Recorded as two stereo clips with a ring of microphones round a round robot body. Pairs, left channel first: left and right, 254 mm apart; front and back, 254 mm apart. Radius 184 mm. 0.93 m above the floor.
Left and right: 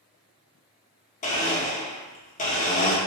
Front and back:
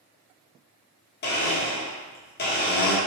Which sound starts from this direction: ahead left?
A blender, at 1.2 s.